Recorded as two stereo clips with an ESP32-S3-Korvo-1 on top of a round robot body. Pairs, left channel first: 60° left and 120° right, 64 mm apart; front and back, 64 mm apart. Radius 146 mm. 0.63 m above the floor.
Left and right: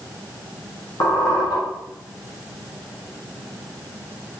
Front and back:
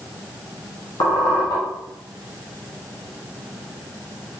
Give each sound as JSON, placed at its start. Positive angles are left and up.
{"t": 1.0, "sound": "a squeak", "azimuth_deg": 20, "distance_m": 1.6}